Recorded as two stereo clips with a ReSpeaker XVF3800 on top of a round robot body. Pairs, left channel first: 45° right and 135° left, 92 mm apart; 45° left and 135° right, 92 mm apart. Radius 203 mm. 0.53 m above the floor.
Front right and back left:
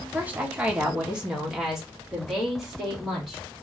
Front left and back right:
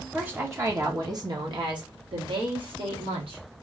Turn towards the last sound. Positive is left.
turn(degrees=-135)